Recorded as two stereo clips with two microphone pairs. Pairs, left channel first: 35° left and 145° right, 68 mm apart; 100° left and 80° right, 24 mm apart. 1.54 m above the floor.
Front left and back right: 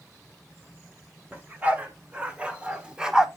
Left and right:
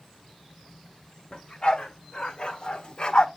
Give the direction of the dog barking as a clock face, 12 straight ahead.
7 o'clock.